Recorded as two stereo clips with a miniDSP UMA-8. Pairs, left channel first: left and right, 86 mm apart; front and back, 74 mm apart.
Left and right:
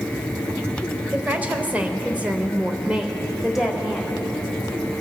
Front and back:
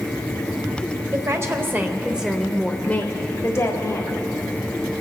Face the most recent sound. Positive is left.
turn(degrees=-5)